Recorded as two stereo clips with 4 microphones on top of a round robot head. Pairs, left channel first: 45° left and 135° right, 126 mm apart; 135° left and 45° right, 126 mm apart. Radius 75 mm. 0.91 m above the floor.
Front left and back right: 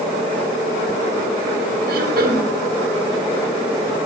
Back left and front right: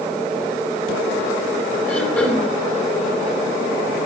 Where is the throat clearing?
150° right, 3 m.